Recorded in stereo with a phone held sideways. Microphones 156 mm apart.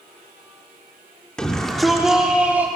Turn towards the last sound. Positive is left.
turn(degrees=-15)  # may be behind; listen again after turning